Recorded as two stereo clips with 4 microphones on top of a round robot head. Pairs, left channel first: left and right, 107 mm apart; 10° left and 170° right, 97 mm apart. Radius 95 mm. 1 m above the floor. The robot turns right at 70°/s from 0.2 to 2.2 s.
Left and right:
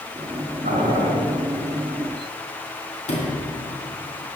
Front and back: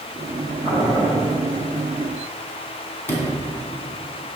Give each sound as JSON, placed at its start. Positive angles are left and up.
{"t": 0.6, "sound": "boiling", "azimuth_deg": -75, "distance_m": 2.5}
{"t": 3.1, "sound": "a sliding door", "azimuth_deg": 80, "distance_m": 3.0}